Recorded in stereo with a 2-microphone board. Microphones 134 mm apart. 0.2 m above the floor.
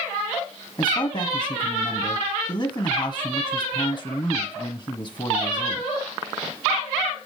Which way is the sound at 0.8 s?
35° left (ahead or behind).